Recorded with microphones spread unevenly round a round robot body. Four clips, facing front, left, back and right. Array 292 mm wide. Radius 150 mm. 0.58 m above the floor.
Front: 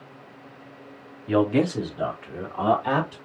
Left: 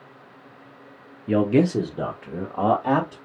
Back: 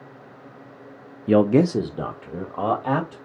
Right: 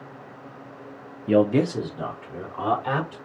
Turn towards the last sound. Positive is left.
turn(degrees=130)